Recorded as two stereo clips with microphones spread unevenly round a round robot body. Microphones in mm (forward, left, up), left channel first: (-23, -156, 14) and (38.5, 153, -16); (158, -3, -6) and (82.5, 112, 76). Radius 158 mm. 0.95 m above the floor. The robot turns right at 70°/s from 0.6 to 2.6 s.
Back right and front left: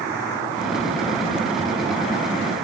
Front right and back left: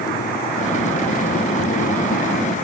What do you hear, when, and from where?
Only background noise.